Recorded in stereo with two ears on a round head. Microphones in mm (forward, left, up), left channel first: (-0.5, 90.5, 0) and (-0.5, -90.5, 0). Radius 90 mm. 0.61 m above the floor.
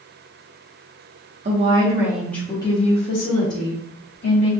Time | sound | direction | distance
1.4 | a woman speaking | 35° right (ahead or behind) | 0.7 m